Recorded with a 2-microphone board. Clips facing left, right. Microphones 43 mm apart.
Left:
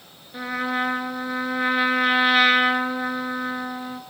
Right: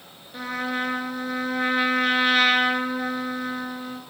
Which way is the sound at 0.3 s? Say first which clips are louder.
Left 2 dB; 5° left (ahead or behind).